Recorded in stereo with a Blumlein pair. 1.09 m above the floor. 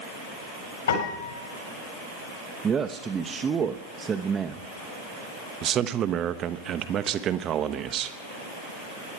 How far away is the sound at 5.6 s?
About 0.9 m.